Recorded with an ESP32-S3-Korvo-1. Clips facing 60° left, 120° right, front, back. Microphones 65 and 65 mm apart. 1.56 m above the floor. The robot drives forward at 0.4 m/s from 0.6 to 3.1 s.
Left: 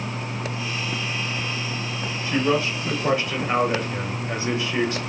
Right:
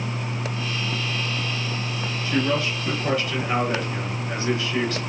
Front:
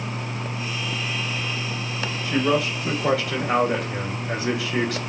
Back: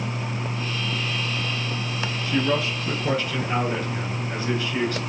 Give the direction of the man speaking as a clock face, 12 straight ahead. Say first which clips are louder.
Left 2 dB, front 2 dB; 12 o'clock.